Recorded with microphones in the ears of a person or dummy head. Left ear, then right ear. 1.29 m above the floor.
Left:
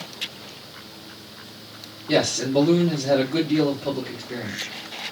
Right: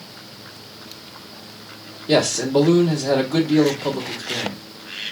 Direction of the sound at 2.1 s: 60° right (ahead or behind).